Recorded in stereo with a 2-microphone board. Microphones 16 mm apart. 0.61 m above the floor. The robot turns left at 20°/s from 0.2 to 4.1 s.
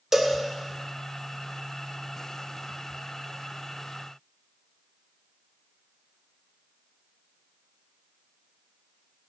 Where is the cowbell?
30° right (ahead or behind), 1.5 m.